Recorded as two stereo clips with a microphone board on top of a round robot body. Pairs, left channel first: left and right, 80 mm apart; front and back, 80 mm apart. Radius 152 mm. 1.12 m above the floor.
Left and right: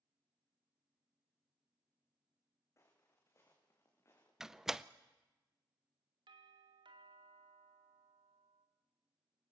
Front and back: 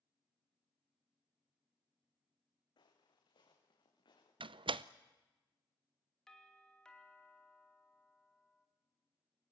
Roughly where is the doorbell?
Right.